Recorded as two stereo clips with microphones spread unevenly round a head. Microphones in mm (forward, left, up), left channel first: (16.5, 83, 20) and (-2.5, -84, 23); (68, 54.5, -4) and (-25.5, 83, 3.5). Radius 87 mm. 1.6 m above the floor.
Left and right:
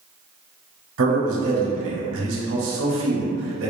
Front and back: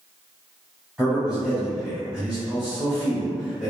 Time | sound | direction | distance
1.0 | a man speaking | 110° right | 0.8 m